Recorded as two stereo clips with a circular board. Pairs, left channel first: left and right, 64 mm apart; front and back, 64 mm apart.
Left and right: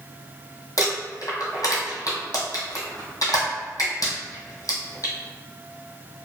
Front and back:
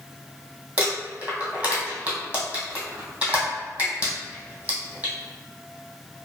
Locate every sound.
0.8 s crumpling: 120° left, 1.5 m